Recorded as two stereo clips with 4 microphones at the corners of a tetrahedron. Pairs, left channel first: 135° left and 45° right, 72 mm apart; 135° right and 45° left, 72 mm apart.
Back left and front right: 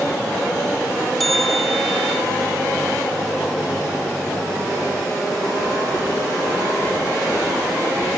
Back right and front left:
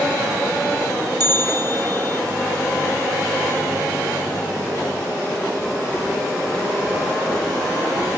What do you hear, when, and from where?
1.2 s a bell: 45° left, 1.2 m